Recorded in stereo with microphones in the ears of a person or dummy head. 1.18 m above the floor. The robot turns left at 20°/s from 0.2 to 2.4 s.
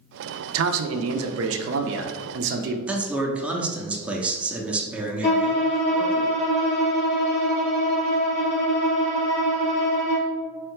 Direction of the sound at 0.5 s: 85° right.